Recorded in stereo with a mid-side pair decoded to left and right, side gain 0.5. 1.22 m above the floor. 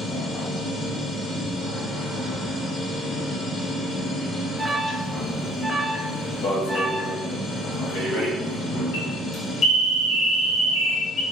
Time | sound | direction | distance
0.0 | a machine running | 50° left | 1.7 m
4.6 | an alarm | straight ahead | 0.8 m
6.4 | an alarm | 60° left | 1.5 m